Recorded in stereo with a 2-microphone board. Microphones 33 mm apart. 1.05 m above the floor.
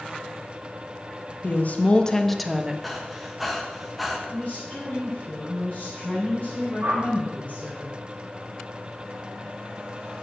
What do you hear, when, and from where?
1.4 s a woman speaking: 65° left (ahead or behind), 1.0 m; by 2.7 s 15° right (ahead or behind), 1.0 m
2.8 s breathing: 5° right (ahead or behind), 1.3 m
4.3 s a woman speaking: 40° left (ahead or behind), 4 m
6.8 s a whoosh: 55° right (ahead or behind), 1.9 m